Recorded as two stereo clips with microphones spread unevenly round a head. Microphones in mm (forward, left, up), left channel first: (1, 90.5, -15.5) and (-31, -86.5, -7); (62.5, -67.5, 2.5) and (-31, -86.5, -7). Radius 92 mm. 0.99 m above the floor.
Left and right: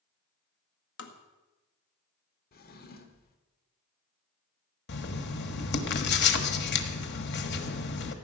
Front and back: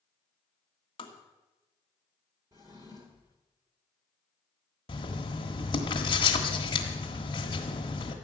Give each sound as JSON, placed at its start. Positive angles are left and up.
{"t": 1.0, "sound": "tapping", "azimuth_deg": 65, "distance_m": 1.6}
{"t": 2.5, "sound": "a drawer", "azimuth_deg": 120, "distance_m": 1.5}
{"t": 4.9, "sound": "writing", "azimuth_deg": 55, "distance_m": 1.4}